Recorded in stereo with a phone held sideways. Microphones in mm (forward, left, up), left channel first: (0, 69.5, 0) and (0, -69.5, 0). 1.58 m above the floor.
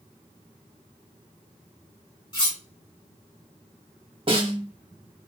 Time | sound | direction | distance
2.3 | cutlery clinking | 30° left (ahead or behind) | 1.6 m
4.3 | a snare drum | 40° right (ahead or behind) | 0.8 m